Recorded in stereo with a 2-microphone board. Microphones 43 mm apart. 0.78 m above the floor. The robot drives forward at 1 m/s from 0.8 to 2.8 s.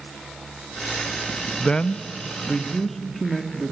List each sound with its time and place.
1.6 s a man speaking: 20° left (ahead or behind), 0.5 m; by 3.7 s 10° left (ahead or behind), 1.2 m